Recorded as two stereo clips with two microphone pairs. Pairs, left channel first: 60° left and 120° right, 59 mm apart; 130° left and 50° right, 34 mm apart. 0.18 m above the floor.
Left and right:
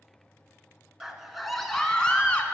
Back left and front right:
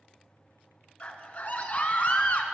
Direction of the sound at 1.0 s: 160° left.